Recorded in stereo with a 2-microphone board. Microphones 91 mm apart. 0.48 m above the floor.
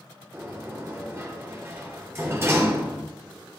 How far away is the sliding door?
About 3 m.